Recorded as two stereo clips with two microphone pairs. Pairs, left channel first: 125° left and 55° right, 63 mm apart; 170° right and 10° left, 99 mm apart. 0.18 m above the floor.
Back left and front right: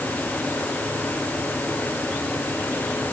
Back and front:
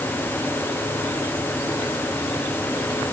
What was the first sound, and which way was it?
Only background noise.